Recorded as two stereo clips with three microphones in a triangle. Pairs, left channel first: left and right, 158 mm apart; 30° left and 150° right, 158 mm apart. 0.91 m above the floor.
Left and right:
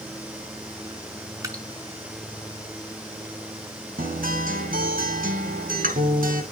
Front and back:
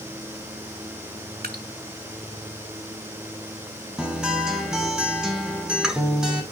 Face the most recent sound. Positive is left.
turn(degrees=-65)